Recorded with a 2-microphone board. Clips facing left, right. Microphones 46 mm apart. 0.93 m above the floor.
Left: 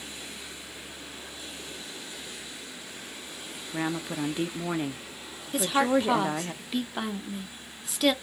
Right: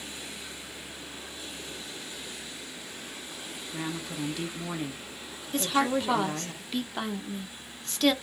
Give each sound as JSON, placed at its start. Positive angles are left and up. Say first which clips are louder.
{"t": 3.7, "sound": "a woman speaking", "louder": "left 5 dB", "side_deg": 30, "distance_m": 0.6}
{"t": 5.5, "sound": "a woman speaking", "louder": "left 2 dB", "side_deg": 5, "distance_m": 0.7}